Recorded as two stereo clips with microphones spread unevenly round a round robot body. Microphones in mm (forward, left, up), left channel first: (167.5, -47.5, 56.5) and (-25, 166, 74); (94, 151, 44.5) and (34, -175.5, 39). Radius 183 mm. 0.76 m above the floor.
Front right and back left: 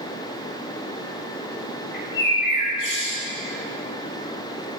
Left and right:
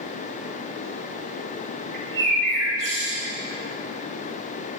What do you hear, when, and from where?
1.9 s a bird: 75° right, 3 m